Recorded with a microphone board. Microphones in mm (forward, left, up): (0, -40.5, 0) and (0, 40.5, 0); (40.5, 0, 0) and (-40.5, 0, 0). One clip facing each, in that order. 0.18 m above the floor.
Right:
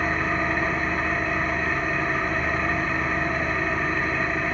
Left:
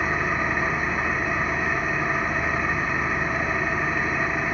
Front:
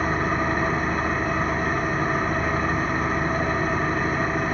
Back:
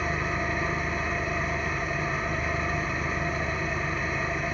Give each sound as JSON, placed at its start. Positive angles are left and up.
{"t": 0.0, "sound": "an engine running", "azimuth_deg": 15, "distance_m": 1.6}